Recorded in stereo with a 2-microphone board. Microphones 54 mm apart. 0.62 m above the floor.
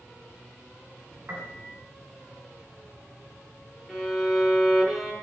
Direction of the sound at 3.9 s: 5° left (ahead or behind).